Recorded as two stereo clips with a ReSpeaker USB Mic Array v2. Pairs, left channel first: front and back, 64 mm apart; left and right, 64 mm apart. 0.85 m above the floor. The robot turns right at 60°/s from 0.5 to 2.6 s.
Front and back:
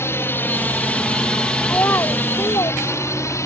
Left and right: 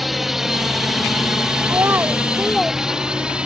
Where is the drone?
5° right; by 3.5 s 20° right.